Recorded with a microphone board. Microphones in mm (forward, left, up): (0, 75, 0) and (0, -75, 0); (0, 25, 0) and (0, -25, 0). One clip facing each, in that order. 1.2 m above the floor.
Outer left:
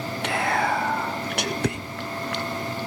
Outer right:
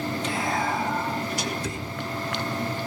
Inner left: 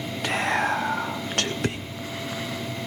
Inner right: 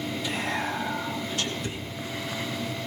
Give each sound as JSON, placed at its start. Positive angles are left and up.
{"t": 0.2, "sound": "whispering", "side_deg": 75, "distance_m": 1.3}